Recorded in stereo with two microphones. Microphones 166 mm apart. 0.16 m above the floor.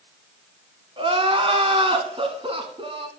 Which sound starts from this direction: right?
Crying, at 1.0 s.